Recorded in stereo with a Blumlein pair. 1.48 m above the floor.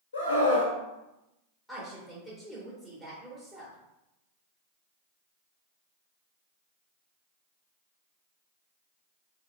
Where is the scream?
70° left, 1.0 m.